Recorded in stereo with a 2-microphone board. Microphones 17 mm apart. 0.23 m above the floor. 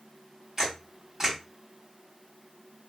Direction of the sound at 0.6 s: 20° right (ahead or behind).